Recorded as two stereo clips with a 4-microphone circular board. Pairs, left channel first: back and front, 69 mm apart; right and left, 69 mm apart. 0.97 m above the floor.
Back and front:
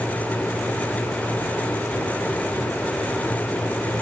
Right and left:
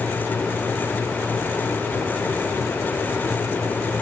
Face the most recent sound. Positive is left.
No sound to turn to.